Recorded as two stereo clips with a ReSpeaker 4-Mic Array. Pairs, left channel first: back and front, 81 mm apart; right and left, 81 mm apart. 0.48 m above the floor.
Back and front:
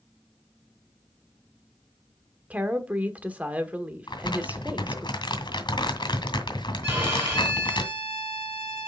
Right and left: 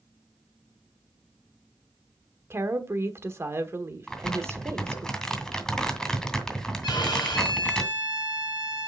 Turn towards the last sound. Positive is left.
turn(degrees=-60)